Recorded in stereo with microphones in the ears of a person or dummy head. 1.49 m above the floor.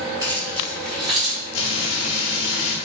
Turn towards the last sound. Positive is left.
turn(degrees=80)